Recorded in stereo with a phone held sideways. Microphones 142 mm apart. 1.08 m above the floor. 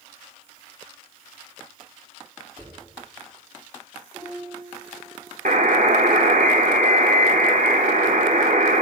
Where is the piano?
15° right (ahead or behind), 6.5 m.